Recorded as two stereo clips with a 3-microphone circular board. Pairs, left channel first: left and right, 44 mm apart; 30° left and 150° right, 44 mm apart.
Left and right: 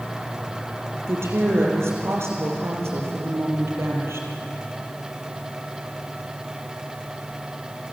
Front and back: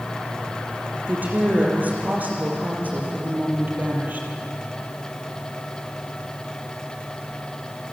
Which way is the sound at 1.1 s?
100° right.